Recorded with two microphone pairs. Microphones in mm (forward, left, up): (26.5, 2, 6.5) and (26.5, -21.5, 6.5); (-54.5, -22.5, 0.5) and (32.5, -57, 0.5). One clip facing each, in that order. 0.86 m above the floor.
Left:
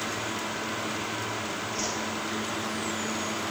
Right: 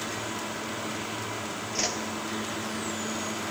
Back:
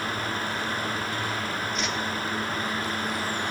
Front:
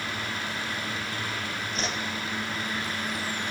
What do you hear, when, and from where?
1.8 s a whoosh: 70° right, 0.5 m